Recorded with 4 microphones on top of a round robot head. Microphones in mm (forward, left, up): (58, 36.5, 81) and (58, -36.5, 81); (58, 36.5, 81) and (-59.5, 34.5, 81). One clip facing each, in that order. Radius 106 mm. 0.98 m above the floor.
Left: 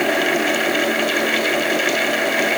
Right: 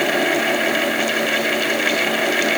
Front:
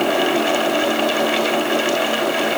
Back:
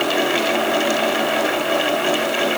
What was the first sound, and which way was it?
Only background noise.